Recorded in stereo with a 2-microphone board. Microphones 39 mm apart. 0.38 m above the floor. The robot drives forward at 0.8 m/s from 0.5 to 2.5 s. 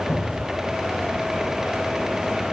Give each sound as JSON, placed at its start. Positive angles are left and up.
{"t": 0.1, "sound": "a cupboard door", "side_deg": 70, "distance_m": 5.5}